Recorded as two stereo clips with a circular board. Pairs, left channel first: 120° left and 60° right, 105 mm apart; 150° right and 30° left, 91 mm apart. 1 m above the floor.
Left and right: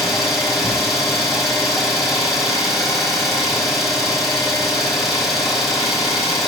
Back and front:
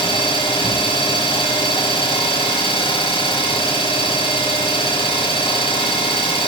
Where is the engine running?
150° right, 3 m.